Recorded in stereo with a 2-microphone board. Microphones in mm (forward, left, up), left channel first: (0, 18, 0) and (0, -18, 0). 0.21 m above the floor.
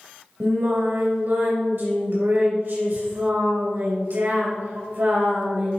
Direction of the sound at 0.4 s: 65° right (ahead or behind).